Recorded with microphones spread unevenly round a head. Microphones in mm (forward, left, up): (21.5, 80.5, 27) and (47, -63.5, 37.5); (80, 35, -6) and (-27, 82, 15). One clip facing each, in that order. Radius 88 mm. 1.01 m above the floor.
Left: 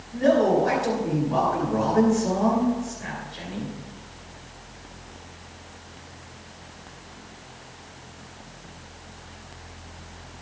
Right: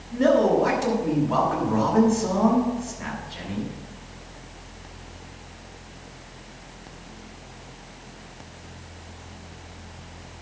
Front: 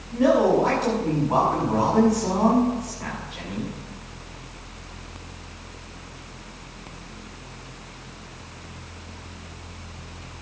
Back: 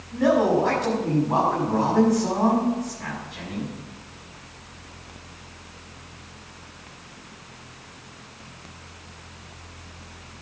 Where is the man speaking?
110° right, 6 m.